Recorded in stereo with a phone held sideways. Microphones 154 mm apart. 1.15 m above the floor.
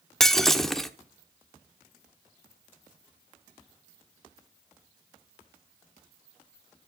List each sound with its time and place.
0.2 s breaking glass: 5° left (ahead or behind), 0.8 m